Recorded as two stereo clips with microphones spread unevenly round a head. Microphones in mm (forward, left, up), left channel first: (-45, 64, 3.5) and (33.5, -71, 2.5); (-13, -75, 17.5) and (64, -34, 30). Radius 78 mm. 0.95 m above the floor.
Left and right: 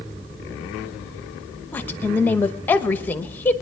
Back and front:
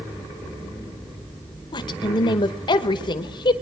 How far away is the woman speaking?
About 0.9 m.